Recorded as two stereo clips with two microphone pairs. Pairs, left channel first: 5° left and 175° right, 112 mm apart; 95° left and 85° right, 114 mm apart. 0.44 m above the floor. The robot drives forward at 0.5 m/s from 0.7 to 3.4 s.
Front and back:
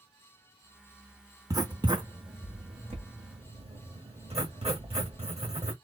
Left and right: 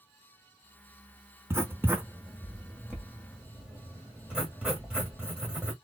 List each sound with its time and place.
1.5 s writing: 140° right, 0.7 m; by 5.7 s 170° right, 1.4 m